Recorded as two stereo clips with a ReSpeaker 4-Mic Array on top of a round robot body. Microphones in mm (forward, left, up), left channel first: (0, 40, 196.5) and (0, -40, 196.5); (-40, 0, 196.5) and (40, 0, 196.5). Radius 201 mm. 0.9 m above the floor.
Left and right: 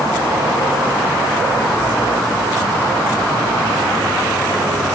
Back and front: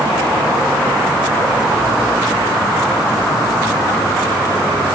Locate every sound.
Only background noise.